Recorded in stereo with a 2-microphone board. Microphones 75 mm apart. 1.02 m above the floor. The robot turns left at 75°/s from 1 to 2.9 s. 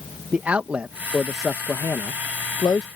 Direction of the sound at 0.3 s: 20° right (ahead or behind).